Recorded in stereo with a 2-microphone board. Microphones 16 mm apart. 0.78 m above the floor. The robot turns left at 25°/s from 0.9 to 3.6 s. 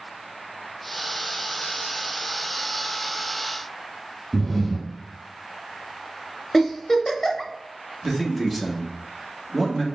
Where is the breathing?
10° left (ahead or behind), 0.9 m.